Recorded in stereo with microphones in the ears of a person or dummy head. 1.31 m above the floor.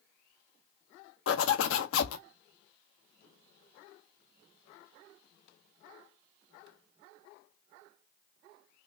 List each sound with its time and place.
1.3 s a zipper: 70° left (ahead or behind), 0.6 m